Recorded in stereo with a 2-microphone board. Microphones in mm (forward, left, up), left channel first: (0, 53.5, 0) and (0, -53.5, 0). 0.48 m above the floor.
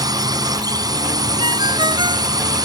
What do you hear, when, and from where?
0.0 s a drone: 35° right (ahead or behind)
1.4 s a ringtone: 45° right (ahead or behind)